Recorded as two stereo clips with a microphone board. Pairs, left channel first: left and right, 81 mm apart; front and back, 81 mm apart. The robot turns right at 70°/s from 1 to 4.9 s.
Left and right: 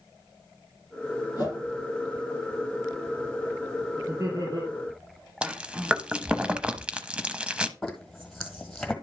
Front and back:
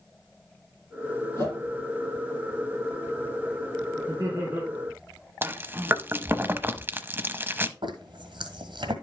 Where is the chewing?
150° right, 0.7 m.